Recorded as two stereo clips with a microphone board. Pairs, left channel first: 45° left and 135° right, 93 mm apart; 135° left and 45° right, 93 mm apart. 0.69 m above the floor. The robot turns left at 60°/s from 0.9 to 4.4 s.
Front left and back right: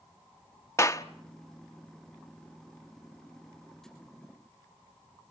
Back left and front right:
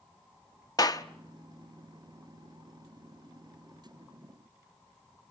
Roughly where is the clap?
Left.